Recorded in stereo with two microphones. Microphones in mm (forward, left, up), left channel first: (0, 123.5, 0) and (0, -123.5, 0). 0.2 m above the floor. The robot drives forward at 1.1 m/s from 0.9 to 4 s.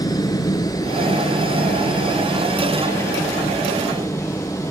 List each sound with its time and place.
0.0 s a helicopter: 15° left (ahead or behind); by 4.7 s 10° left (ahead or behind)